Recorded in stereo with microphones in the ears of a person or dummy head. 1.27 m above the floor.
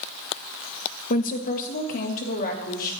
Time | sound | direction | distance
1.1 | a woman speaking | 45° left (ahead or behind) | 1.2 m